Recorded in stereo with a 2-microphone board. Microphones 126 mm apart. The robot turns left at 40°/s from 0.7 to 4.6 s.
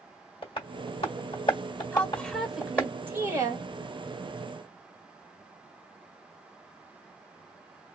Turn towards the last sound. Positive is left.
turn(degrees=-85)